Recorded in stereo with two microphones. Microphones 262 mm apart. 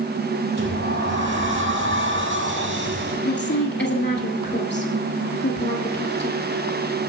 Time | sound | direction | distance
0.6 | a sliding door | 50° right (ahead or behind) | 5 m
3.2 | a woman speaking | 45° left (ahead or behind) | 2.5 m